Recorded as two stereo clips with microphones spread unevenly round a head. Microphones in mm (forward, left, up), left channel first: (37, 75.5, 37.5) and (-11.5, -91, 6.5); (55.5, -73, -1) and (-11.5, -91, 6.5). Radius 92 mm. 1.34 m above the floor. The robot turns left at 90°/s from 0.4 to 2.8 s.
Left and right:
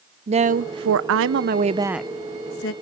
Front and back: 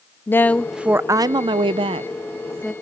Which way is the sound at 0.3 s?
50° right.